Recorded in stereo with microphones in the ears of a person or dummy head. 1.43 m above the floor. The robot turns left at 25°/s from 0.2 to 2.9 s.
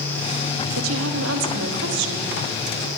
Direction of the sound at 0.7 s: 80° right.